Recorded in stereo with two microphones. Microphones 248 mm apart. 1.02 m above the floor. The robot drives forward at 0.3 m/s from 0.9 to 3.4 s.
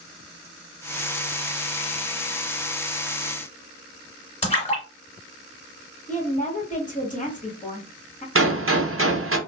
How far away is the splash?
About 1.7 m.